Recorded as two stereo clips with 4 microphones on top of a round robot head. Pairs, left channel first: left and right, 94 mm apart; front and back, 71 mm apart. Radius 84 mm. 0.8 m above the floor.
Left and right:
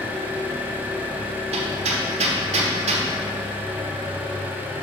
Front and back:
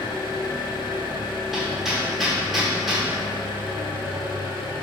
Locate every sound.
0.0 s an engine running: 15° right, 1.0 m
1.5 s hammering: 90° right, 0.9 m